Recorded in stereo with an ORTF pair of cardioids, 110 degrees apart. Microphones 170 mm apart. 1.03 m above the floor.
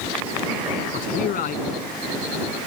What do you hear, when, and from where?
0.9 s a man speaking: 60° left